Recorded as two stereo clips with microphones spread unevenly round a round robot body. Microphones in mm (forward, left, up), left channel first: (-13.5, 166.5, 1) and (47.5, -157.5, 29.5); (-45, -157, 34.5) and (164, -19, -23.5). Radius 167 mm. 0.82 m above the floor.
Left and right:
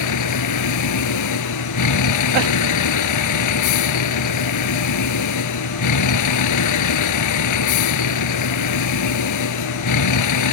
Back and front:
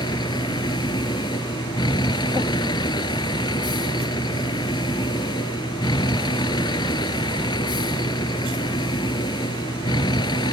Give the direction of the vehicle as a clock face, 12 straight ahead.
7 o'clock.